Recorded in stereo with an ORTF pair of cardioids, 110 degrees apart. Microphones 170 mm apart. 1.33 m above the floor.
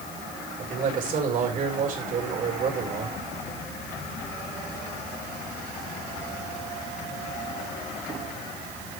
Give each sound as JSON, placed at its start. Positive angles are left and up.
{"t": 0.6, "sound": "a man speaking", "azimuth_deg": -50, "distance_m": 5.0}